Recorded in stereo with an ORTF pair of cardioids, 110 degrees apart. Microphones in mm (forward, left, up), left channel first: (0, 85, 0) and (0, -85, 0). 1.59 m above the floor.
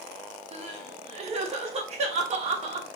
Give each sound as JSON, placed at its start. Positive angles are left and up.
{"t": 0.5, "sound": "crying", "azimuth_deg": -40, "distance_m": 0.7}